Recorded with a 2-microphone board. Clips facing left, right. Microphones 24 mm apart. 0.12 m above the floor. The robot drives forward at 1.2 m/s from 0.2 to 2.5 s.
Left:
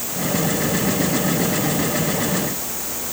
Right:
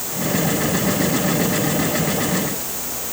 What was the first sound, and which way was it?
Only background noise.